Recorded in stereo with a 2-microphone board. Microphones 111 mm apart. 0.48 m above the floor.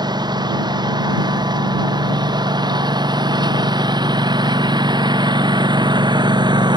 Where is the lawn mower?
40° right (ahead or behind); by 6.8 s 45° right (ahead or behind).